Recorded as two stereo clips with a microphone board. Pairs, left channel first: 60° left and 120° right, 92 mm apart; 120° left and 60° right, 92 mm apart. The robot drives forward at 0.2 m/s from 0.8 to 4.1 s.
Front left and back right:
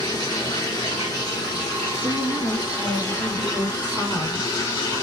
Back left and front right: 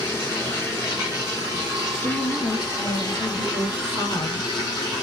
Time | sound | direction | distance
0.0 | running water | 75° left | 2 m
2.0 | a woman speaking | 100° left | 1.1 m